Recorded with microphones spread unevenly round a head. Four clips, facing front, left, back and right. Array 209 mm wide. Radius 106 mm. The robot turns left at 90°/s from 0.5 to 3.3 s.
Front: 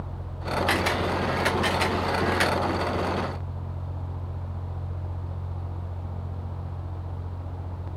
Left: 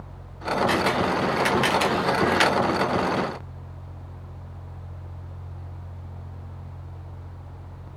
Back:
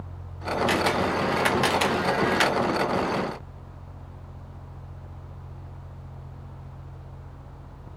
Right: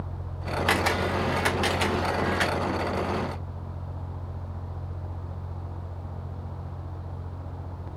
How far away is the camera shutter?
About 0.7 m.